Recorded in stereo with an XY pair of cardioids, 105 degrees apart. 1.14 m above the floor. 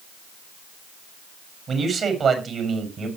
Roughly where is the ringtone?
I don't hear a ringtone.